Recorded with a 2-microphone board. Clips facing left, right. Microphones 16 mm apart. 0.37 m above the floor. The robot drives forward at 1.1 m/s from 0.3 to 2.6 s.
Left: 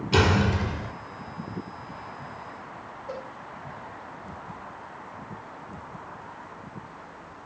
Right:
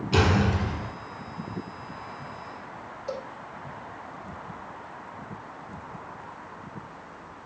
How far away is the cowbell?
About 8 m.